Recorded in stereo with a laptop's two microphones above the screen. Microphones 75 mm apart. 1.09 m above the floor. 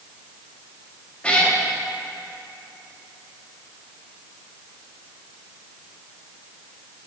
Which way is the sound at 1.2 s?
15° left (ahead or behind).